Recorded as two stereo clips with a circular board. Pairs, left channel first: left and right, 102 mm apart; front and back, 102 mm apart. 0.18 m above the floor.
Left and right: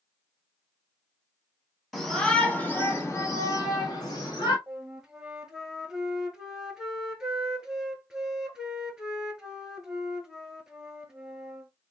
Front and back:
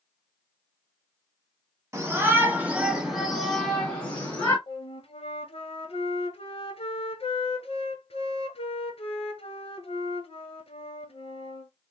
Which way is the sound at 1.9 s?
175° left.